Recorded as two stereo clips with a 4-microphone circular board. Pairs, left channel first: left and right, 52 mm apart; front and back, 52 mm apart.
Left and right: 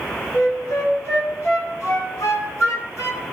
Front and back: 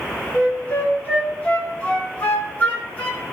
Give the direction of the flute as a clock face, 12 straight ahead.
10 o'clock.